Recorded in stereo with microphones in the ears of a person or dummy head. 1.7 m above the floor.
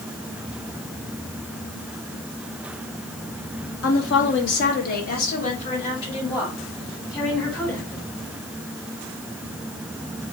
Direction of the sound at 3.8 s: 80° left.